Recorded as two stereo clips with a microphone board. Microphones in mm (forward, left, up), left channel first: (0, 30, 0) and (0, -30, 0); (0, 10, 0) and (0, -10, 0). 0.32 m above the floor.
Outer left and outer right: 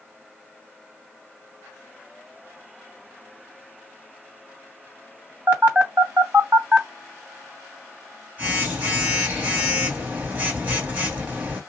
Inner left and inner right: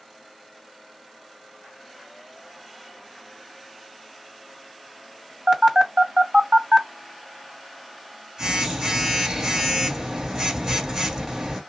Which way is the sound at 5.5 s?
25° right (ahead or behind).